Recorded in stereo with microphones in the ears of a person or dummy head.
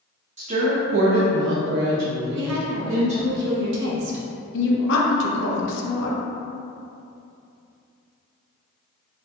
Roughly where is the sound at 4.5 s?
Left.